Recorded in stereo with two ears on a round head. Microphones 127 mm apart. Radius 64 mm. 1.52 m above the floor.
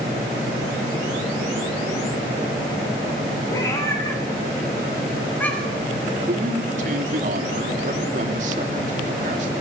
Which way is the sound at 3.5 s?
25° left (ahead or behind).